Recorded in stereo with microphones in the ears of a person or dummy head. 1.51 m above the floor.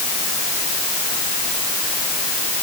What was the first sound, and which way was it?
Only background noise.